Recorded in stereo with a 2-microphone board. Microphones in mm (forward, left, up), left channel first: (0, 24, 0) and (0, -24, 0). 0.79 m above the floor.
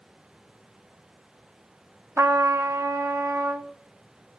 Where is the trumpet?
70° right (ahead or behind), 0.5 m.